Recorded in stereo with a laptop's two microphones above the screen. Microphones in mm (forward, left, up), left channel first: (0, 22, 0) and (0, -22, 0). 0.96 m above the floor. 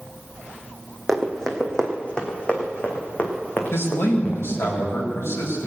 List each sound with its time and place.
1.1 s running footsteps: 5° left (ahead or behind), 1.7 m; by 4.7 s 40° left (ahead or behind), 3.5 m
3.7 s a man speaking: 75° left (ahead or behind), 4.5 m